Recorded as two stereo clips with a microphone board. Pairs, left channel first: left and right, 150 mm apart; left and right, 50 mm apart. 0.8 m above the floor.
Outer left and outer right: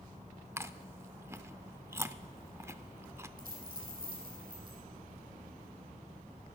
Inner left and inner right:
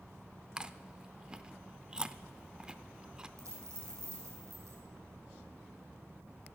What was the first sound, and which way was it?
Chewing, 15° right (ahead or behind).